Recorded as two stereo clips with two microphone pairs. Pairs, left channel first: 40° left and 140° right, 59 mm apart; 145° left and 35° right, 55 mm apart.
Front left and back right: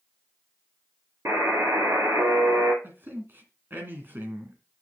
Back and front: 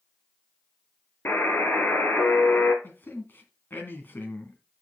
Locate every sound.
1.2 s a buzzer: 170° right, 2.5 m
2.8 s a man speaking: straight behind, 2.5 m